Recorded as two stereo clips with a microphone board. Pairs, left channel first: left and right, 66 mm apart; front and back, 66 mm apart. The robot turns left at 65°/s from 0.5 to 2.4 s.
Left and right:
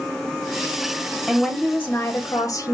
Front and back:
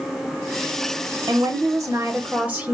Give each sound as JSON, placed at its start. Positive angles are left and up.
{"t": 1.3, "sound": "a woman speaking", "azimuth_deg": -170, "distance_m": 0.8}